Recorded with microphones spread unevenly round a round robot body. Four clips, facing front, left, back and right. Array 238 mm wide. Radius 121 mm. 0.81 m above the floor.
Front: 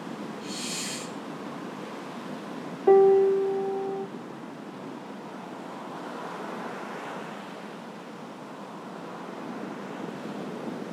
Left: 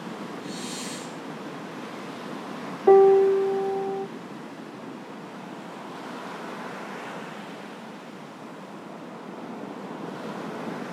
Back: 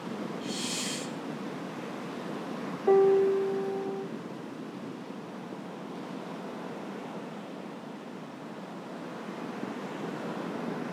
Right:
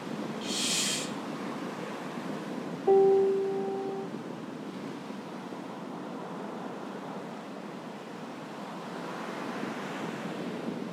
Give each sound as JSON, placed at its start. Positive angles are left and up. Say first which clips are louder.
{"t": 0.4, "sound": "a hiss", "louder": "even, back 1 dB", "azimuth_deg": -80, "distance_m": 3.0}
{"t": 2.9, "sound": "a piano", "louder": "left 7 dB, front 4 dB", "azimuth_deg": 75, "distance_m": 0.7}